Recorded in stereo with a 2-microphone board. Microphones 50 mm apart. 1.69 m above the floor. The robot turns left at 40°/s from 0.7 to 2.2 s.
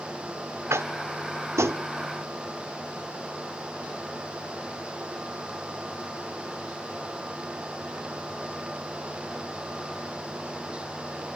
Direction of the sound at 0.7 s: 65° right (ahead or behind).